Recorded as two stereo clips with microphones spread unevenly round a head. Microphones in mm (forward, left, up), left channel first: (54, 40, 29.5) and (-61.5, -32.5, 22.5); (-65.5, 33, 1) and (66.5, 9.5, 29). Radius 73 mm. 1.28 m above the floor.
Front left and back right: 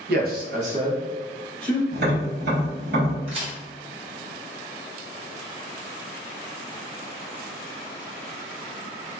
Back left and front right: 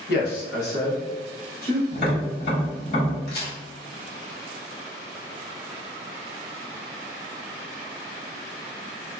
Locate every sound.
0.1 s a man speaking: 165° right, 0.8 m; by 1.8 s 155° left, 1.5 m
1.9 s tapping: 155° right, 1.5 m
3.3 s a crack: 165° left, 1.1 m